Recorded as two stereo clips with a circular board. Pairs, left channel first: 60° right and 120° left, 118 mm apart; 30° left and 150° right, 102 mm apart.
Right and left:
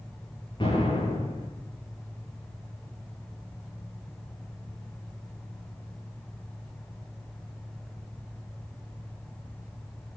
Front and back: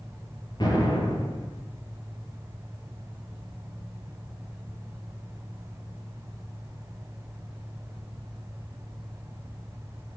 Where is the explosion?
15° right, 3.5 m.